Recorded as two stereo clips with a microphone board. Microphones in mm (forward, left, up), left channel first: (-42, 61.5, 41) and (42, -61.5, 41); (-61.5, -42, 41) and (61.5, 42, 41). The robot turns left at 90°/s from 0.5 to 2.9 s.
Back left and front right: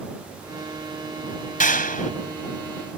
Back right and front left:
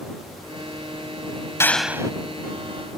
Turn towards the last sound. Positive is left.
turn(degrees=25)